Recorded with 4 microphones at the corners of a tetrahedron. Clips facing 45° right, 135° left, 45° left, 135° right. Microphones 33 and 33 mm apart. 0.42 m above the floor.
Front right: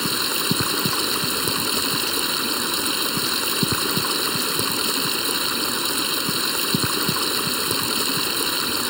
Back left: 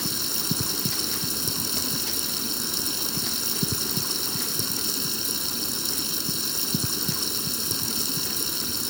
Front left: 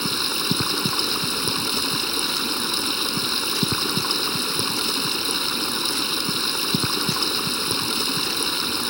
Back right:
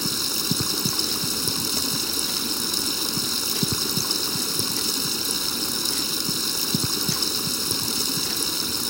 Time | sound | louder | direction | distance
0.0 | running water | front right 7 dB, front left 3 dB | 10° right | ?